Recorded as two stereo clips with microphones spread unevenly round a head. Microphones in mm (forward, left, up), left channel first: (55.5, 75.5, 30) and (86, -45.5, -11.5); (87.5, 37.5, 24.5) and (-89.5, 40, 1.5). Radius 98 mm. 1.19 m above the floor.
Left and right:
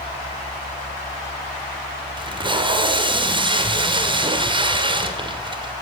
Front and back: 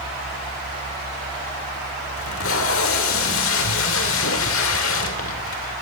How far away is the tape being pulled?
About 2.5 m.